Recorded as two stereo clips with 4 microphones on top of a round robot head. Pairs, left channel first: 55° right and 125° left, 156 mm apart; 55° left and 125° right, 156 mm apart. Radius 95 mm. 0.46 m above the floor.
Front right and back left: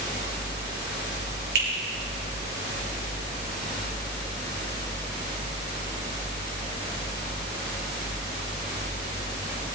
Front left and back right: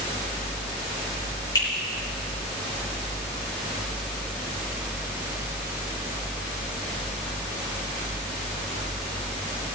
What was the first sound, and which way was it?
A finger snap, 120° left.